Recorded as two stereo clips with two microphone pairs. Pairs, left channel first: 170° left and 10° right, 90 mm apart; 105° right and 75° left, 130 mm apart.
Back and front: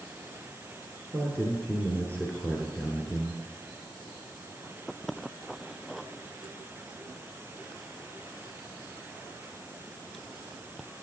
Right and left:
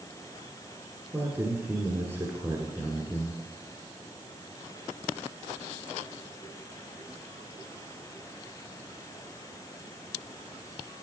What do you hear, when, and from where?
1.1 s a man speaking: 120° left, 1.2 m